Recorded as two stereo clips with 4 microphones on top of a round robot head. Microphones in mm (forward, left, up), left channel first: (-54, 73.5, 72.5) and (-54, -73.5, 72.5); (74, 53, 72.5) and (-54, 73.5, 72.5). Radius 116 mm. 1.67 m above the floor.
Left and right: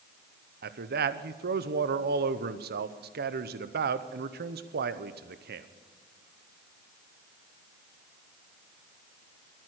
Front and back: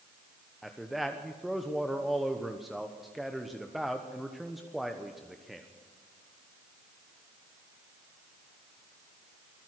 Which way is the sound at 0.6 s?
100° right.